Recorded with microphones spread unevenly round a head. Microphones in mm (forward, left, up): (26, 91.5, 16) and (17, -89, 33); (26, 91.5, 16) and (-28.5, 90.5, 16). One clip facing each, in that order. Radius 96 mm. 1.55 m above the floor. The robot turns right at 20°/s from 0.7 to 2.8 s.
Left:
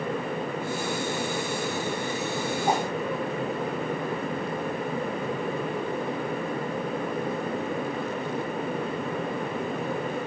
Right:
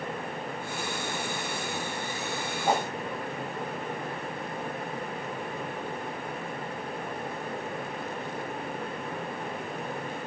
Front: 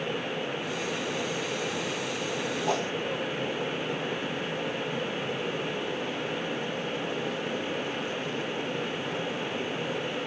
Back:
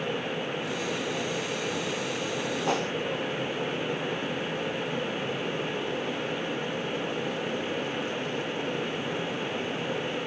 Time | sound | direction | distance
2.7 | a whoosh | 165° left | 1.2 m